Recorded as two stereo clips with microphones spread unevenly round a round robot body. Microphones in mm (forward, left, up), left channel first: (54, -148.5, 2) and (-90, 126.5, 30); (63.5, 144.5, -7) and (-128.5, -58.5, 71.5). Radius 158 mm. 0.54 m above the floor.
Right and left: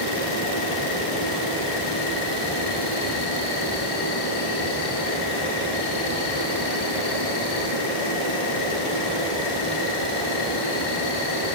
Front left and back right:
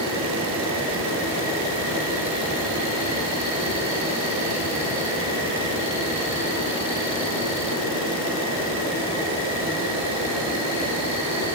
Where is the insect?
50° right, 10 m.